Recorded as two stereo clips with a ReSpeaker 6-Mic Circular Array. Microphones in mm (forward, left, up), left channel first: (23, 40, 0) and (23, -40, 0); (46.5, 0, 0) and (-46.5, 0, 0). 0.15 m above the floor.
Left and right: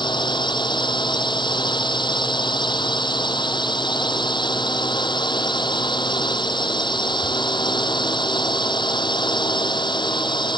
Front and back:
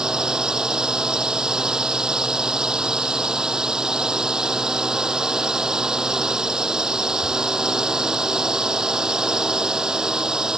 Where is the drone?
95° left.